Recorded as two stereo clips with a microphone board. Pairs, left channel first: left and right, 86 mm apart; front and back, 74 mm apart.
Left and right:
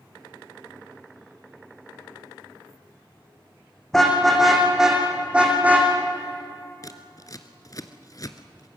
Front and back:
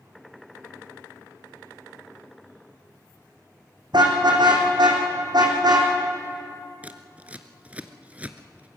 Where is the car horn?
175° left, 4.5 m; by 5.9 s 160° right, 4 m.